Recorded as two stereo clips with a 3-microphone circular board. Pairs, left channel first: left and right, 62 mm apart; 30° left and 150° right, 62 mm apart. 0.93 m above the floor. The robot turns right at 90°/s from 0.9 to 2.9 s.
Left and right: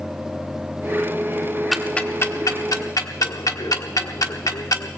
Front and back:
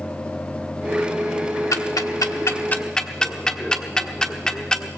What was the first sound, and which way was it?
Ticking, straight ahead.